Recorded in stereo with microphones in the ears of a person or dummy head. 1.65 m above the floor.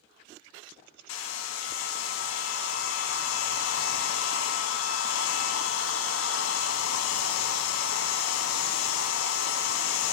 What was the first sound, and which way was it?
A hair dryer, 85° left.